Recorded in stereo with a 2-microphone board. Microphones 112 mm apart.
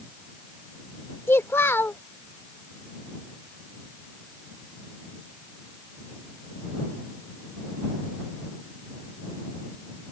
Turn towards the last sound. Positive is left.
turn(degrees=20)  # may be behind; listen again after turning